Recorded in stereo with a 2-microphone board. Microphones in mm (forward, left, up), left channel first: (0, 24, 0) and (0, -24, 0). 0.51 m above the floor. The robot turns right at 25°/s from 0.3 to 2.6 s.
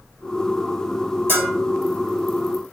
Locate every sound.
1.3 s a bell: 50° right (ahead or behind), 1.8 m; by 1.5 s 55° right (ahead or behind), 1.8 m